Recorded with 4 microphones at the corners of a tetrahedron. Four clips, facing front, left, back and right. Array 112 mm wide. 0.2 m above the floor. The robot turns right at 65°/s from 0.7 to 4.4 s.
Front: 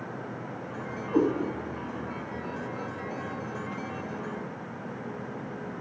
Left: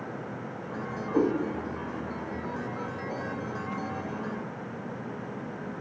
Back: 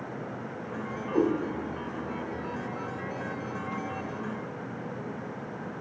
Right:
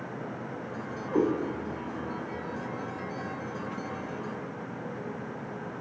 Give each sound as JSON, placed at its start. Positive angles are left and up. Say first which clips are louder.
{"t": 1.1, "sound": "a cat meowing", "louder": "left 1 dB, front 1 dB", "azimuth_deg": -70, "distance_m": 1.7}